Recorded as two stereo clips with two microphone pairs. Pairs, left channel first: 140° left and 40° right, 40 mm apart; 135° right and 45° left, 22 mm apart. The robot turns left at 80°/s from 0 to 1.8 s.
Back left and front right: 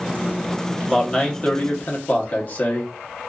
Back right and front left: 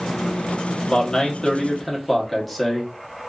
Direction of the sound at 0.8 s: 140° right.